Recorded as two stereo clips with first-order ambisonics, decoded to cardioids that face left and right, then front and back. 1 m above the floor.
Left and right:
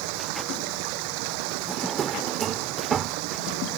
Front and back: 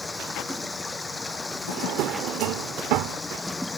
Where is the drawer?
155° right.